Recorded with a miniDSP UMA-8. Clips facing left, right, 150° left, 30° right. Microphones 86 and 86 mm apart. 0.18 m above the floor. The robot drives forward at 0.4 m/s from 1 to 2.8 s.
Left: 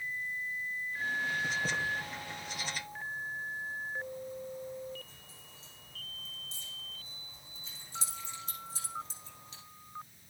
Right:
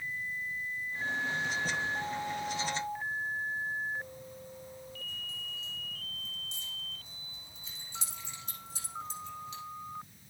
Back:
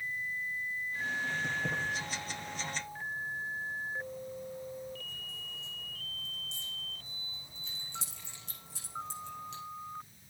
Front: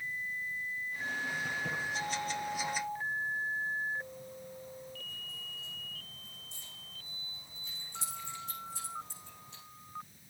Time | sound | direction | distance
1.4 | keys jangling | 145° left | 7 m